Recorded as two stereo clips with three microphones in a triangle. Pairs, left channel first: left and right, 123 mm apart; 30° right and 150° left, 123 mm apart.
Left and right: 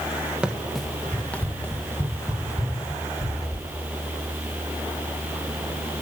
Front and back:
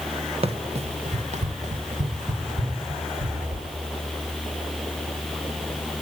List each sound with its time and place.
0.4 s running footsteps: 170° right, 1.5 m; by 3.7 s 150° left, 4 m